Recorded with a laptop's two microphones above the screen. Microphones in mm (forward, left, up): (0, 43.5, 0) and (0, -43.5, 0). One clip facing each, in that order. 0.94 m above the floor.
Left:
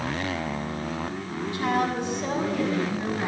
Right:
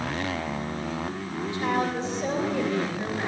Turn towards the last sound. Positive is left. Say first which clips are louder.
# left 1 dB
turn(degrees=-25)  # may be behind; listen again after turning